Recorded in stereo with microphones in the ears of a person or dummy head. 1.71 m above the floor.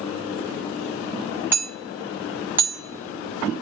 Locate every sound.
1.5 s hammering: 5° right (ahead or behind), 1.6 m